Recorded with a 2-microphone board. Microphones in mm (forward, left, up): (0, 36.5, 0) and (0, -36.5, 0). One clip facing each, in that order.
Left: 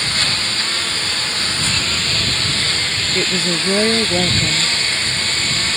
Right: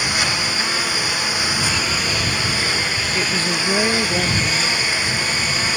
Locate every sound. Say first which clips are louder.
0.0 s a lawn mower: right 1 dB; 10° right (ahead or behind)
3.1 s a woman speaking: left 3 dB; 15° left (ahead or behind)